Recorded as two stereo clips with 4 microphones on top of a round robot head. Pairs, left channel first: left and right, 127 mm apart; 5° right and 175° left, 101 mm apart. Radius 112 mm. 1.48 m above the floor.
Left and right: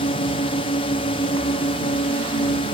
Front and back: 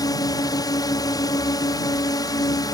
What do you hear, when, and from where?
0.0 s a drone: 40° left